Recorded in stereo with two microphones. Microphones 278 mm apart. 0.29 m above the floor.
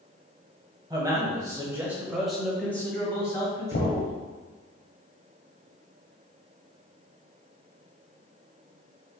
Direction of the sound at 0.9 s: 15° right (ahead or behind).